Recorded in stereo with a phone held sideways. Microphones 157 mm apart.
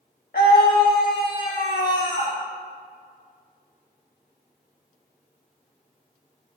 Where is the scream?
80° left, 1.2 m; by 2.4 s 65° left (ahead or behind), 1.8 m.